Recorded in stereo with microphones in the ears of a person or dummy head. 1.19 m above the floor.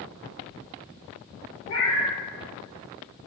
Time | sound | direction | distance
1.7 | a cat meowing | 70° left (ahead or behind) | 1.8 m